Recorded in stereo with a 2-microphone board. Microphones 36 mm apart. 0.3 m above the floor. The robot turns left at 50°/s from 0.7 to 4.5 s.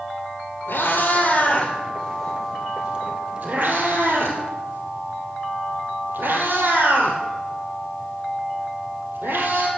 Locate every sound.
0.7 s a cat meowing: 85° left, 2 m; by 9.7 s 80° right, 2 m